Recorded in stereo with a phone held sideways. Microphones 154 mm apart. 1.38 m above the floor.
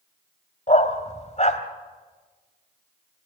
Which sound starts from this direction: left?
A dog barking, at 0.7 s.